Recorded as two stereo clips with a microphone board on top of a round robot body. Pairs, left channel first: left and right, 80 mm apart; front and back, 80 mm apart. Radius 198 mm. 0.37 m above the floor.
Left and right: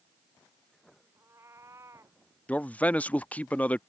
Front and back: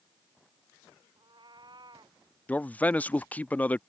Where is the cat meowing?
150° right; by 2.2 s 145° right.